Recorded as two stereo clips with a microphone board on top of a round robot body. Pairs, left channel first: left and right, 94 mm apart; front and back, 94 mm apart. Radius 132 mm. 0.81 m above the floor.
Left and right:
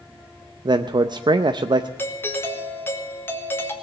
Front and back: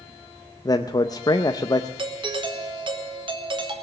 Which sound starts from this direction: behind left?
A doorbell, at 2.0 s.